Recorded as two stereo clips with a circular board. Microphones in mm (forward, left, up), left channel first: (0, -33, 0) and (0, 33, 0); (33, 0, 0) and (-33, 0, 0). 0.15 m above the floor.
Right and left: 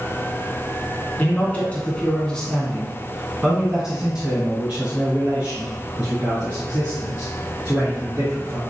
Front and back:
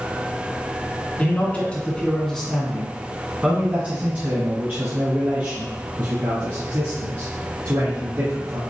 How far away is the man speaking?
About 1.5 m.